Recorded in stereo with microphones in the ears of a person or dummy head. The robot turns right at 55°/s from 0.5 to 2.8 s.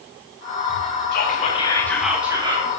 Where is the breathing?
No breathing in this recording.